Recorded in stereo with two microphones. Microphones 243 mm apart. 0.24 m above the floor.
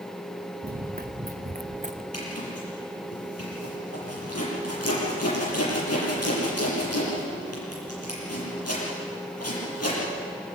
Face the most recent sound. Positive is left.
turn(degrees=80)